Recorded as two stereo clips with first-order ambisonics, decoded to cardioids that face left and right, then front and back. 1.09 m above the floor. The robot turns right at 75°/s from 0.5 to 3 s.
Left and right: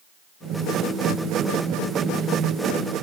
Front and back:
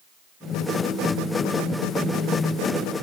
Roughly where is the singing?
I don't hear singing.